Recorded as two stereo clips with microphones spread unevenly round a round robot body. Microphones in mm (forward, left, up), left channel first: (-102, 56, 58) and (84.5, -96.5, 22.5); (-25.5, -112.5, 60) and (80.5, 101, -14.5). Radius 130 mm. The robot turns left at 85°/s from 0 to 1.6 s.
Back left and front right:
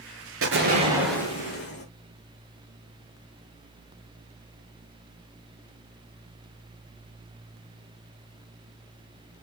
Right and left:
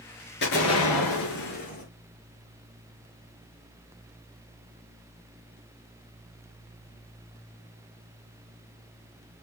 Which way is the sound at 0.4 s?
70° right.